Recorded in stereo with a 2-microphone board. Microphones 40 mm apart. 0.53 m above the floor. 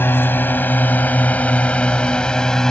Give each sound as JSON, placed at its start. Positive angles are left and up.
{"t": 0.0, "sound": "a drone", "side_deg": 60}